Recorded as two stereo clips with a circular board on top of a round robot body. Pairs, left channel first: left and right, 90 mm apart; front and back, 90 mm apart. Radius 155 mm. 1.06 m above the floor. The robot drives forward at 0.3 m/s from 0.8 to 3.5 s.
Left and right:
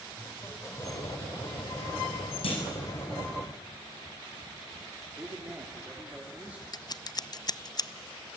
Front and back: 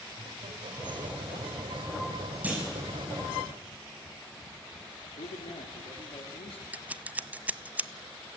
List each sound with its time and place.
0.1 s laughter: 155° left, 4.5 m; by 3.4 s 160° left, 5 m
2.4 s a clunk: 105° left, 5.5 m; by 2.8 s 110° left, 6 m
5.2 s a man speaking: 15° right, 3.5 m
6.7 s scissors: 110° left, 0.7 m